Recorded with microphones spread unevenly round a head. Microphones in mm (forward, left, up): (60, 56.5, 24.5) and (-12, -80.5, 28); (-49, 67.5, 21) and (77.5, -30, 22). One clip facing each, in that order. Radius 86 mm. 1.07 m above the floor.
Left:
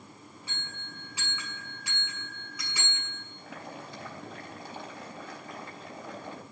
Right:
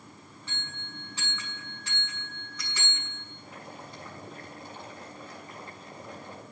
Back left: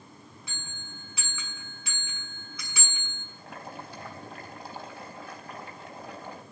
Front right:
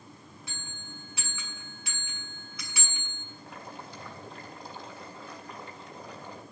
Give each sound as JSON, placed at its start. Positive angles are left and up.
{"t": 0.5, "sound": "a bell", "azimuth_deg": 145, "distance_m": 7.5}
{"t": 3.4, "sound": "boiling", "azimuth_deg": 105, "distance_m": 4.0}